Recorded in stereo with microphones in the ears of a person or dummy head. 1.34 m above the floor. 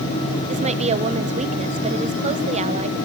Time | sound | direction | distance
0.5 | a woman speaking | 35° right (ahead or behind) | 1.1 m